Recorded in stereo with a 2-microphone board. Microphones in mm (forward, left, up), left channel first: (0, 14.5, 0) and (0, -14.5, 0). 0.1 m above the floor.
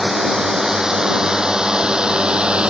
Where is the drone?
15° right (ahead or behind); by 2.7 s 35° right (ahead or behind).